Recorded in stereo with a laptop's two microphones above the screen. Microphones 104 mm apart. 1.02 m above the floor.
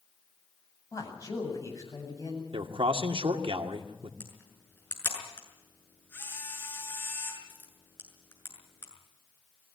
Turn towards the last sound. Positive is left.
turn(degrees=20)  # may be behind; listen again after turning